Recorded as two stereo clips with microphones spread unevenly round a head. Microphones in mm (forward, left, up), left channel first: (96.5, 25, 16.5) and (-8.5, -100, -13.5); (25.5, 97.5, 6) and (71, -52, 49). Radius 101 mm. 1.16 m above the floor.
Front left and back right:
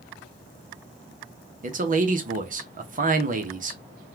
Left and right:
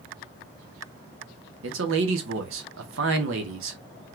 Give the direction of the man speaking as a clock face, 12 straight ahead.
3 o'clock.